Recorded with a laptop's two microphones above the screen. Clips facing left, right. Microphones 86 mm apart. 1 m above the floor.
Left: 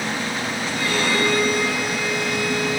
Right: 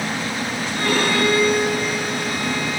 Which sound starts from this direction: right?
A violin, at 0.8 s.